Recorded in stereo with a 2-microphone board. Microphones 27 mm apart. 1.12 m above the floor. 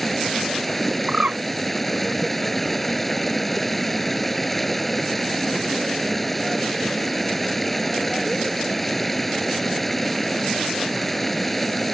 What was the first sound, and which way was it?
Running water, 5° left (ahead or behind).